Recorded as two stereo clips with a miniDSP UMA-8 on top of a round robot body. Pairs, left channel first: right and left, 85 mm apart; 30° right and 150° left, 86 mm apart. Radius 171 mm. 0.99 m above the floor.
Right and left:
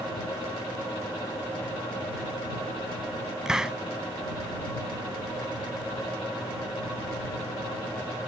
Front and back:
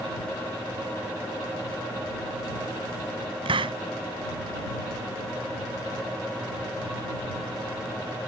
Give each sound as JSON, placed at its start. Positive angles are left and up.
{"t": 3.5, "sound": "a hiss", "azimuth_deg": 175}